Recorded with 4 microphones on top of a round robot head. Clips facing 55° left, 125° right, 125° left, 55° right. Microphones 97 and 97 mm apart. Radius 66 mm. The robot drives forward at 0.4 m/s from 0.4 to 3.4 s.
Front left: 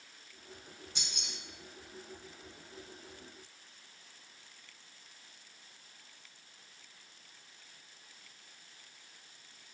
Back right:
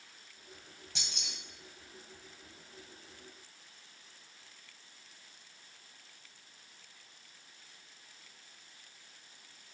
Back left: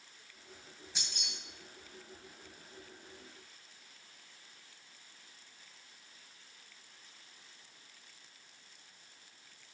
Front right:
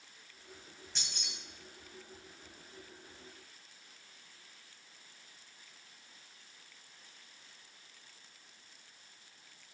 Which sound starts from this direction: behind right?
Keys jangling, at 0.9 s.